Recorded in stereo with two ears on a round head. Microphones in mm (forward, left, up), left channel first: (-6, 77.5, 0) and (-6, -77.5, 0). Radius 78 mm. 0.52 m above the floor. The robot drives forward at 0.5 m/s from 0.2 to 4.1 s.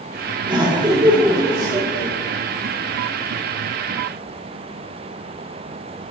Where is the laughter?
25° right (ahead or behind), 1.0 m; by 2.1 s 20° right (ahead or behind), 1.3 m.